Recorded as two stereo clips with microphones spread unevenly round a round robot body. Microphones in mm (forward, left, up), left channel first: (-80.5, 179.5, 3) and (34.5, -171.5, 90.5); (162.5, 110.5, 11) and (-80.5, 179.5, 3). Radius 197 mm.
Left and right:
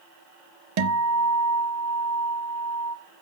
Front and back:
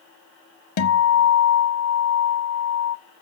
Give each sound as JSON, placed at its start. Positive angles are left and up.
{"t": 0.8, "sound": "a guitar", "azimuth_deg": -20, "distance_m": 0.7}